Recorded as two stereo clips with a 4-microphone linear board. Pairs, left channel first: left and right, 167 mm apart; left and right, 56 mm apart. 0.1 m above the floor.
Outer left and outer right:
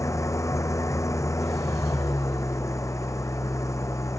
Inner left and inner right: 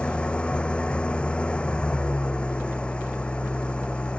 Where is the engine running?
20° left (ahead or behind).